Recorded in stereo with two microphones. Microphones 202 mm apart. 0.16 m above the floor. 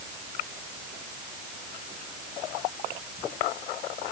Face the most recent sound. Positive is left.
No sound to turn to.